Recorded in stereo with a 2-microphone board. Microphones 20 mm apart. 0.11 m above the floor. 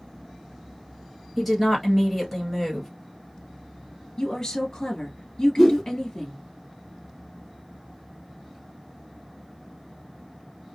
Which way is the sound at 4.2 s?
30° left (ahead or behind).